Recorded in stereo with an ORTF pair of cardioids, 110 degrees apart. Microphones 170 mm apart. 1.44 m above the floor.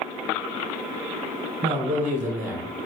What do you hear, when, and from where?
1.6 s a man speaking: 35° right, 1.1 m; by 2.7 s 75° right, 1.4 m